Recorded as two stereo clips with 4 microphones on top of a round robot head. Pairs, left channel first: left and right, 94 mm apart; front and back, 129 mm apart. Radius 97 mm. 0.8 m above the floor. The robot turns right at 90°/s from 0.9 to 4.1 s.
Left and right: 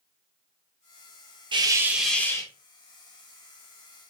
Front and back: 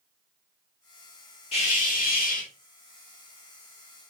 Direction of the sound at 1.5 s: 50° right.